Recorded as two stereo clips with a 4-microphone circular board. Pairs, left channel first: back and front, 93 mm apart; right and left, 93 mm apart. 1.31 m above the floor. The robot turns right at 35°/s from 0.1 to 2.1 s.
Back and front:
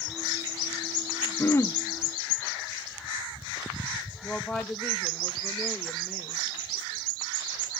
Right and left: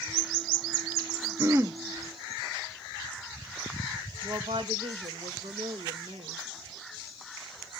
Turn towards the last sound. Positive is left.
turn(degrees=90)